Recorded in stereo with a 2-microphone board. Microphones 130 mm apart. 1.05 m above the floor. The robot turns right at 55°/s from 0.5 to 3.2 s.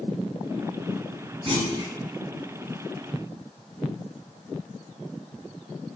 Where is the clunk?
40° right (ahead or behind), 1.1 m; by 1.9 s 15° right (ahead or behind), 1.1 m.